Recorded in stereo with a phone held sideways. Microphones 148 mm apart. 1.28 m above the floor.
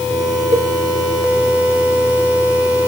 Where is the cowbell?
40° right (ahead or behind).